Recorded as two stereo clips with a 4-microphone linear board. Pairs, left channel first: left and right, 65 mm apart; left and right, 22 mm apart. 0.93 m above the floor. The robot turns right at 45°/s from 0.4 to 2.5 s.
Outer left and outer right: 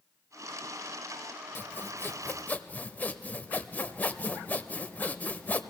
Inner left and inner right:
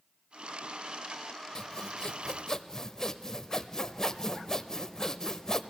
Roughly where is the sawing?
Left.